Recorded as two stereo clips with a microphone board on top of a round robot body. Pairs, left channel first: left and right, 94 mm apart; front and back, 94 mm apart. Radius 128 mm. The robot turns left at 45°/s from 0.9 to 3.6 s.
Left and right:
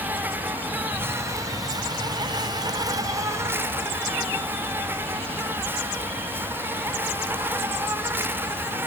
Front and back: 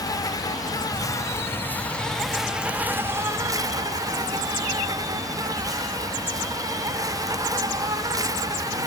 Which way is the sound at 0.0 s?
25° right.